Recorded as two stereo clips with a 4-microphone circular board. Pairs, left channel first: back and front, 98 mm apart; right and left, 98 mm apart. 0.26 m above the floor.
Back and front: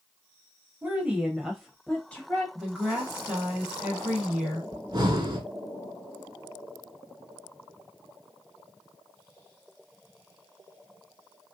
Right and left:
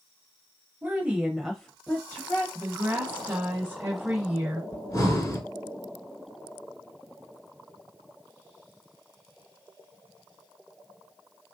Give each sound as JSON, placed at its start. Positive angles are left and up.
{"t": 0.8, "sound": "a woman speaking", "azimuth_deg": 50, "distance_m": 1.0}
{"t": 2.5, "sound": "a woman speaking", "azimuth_deg": 65, "distance_m": 1.0}
{"t": 4.7, "sound": "breathing", "azimuth_deg": -40, "distance_m": 0.9}